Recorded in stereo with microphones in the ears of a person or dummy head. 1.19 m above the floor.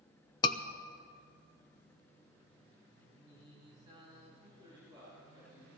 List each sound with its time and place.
0.4 s a scream: 20° left (ahead or behind), 0.6 m
3.1 s singing: 40° right (ahead or behind), 4 m
4.4 s a man speaking: 35° right (ahead or behind), 7 m